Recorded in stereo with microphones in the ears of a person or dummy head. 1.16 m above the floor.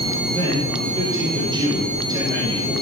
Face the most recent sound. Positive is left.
turn(degrees=-30)  # may be behind; listen again after turning